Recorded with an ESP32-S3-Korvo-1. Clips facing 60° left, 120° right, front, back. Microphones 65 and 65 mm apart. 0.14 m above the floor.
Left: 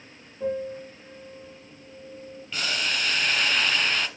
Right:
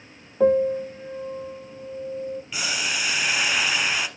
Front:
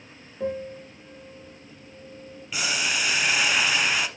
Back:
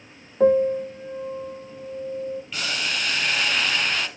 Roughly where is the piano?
Behind right.